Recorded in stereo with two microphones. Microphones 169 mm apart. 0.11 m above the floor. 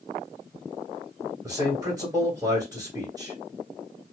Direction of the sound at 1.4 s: 20° right (ahead or behind).